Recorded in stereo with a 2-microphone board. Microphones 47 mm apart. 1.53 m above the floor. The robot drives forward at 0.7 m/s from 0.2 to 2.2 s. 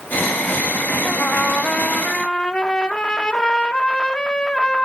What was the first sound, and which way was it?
A trumpet, 35° left (ahead or behind).